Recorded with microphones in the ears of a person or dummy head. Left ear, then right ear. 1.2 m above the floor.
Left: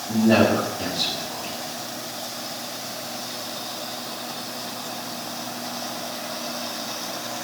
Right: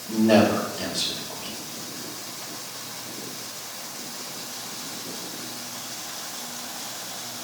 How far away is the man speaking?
About 3 m.